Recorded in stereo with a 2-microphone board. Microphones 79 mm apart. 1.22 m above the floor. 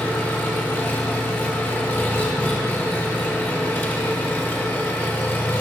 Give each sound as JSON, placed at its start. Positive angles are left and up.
{"t": 0.0, "sound": "an engine running", "side_deg": 25, "distance_m": 0.9}